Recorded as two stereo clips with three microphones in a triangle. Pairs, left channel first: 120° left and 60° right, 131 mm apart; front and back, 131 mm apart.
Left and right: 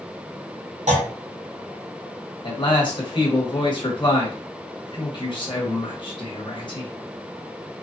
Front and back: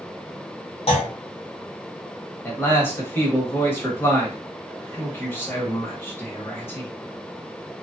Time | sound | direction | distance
0.9 | a clunk | 40° right | 1.1 m
2.4 | a man speaking | 70° left | 1.3 m